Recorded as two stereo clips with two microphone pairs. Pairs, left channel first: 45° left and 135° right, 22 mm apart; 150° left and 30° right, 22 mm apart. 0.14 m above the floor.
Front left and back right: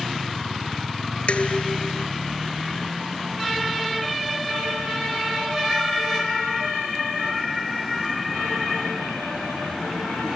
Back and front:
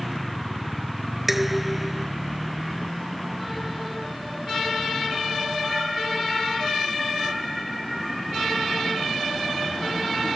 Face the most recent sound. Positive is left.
turn(degrees=45)